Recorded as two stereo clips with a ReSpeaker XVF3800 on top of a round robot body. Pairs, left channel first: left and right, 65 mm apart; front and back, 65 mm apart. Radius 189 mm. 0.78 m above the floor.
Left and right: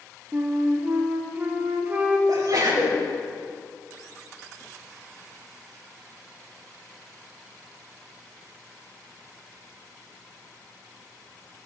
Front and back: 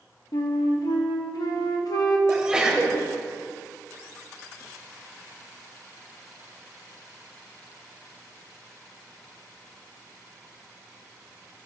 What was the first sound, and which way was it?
A flute, 25° right.